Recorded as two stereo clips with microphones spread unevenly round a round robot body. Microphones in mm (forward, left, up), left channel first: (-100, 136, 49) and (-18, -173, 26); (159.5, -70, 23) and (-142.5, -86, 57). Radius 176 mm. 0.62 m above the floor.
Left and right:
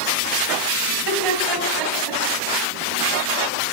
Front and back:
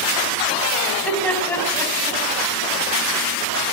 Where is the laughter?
85° right, 4 m; by 2.2 s 75° right, 4.5 m.